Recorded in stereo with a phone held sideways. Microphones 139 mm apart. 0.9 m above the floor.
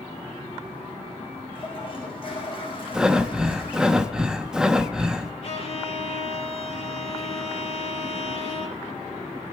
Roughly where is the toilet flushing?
Left.